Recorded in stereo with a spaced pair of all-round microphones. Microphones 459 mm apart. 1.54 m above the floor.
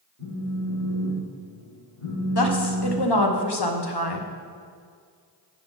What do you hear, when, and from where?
0.2 s a phone buzzing: 35° left (ahead or behind), 3 m
2.4 s a woman speaking: 60° left (ahead or behind), 1.0 m